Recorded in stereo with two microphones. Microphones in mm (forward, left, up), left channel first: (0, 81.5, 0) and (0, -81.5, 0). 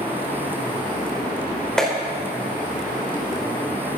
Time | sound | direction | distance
1.8 | a clap | 5° left (ahead or behind) | 4 m